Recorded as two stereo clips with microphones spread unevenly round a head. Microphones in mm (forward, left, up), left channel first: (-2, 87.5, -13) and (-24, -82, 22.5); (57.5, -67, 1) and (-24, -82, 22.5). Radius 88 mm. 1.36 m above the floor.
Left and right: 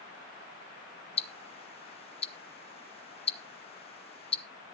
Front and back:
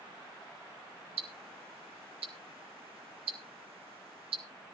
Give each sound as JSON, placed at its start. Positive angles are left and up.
{"t": 1.2, "sound": "ticking", "azimuth_deg": 140, "distance_m": 0.6}